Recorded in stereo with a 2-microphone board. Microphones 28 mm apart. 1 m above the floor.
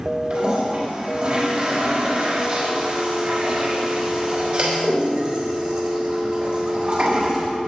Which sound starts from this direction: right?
A toilet flushing, at 0.3 s.